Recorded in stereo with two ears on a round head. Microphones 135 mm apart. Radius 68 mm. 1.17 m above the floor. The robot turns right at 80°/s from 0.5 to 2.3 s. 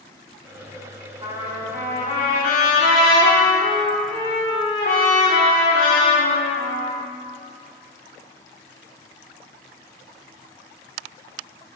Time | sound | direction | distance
1.2 | a trumpet | 25° right | 1.6 m